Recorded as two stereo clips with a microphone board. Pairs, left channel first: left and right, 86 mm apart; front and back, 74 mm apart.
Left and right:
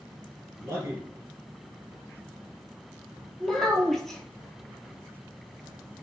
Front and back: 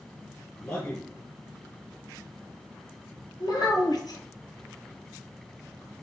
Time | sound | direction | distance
0.6 | a man speaking | 40° right | 2.5 m
3.4 | a child speaking | 5° left | 1.6 m